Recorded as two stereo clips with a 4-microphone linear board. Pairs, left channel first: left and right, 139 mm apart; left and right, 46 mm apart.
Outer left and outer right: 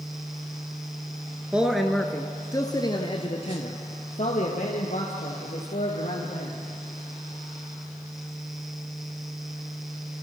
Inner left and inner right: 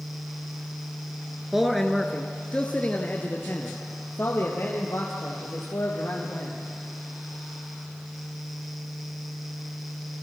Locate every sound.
1.5 s a man speaking: 10° right (ahead or behind), 1.4 m; by 6.6 s 70° left (ahead or behind), 4 m